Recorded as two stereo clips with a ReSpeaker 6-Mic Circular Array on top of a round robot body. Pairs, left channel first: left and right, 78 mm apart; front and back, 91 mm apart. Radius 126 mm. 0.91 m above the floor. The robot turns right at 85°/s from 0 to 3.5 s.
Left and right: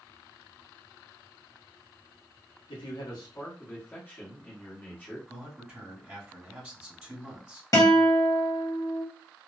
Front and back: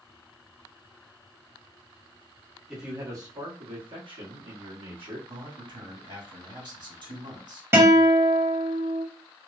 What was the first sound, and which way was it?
A man speaking, 90° left.